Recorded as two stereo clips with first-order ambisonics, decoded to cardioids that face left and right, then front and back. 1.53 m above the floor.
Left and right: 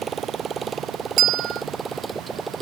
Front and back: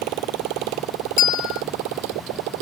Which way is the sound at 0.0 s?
160° right.